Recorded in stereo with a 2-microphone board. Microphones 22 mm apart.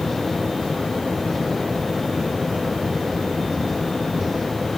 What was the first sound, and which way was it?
Only background noise.